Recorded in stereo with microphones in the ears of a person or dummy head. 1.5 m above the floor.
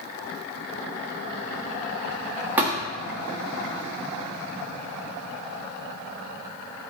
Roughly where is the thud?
Centre.